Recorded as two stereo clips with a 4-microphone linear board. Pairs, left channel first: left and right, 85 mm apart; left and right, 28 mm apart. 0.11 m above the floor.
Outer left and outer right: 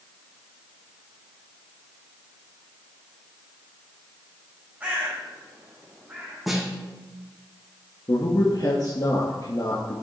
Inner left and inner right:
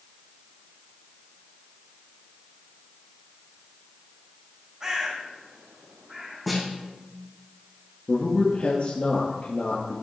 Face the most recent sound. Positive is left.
turn(degrees=50)  # may be behind; listen again after turning